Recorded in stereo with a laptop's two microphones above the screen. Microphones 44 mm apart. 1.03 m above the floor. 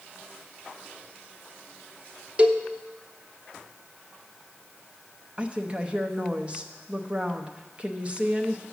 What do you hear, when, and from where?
2.4 s a cowbell: 30° right (ahead or behind), 0.6 m
5.4 s a woman speaking: 25° right (ahead or behind), 0.6 m